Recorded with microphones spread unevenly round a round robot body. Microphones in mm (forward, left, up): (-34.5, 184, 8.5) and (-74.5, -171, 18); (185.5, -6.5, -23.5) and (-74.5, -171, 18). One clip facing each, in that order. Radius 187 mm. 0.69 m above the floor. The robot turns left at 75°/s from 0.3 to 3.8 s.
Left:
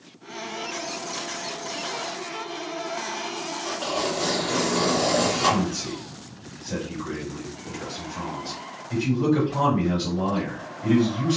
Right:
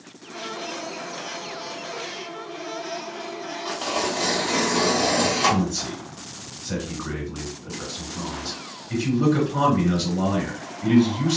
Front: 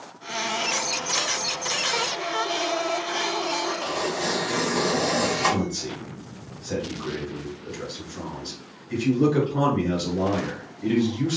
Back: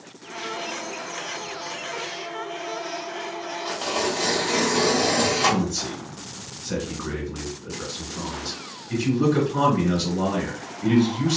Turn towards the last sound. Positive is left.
turn(degrees=-75)